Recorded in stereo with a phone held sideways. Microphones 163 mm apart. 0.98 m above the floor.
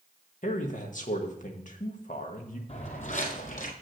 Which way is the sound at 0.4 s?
55° left (ahead or behind).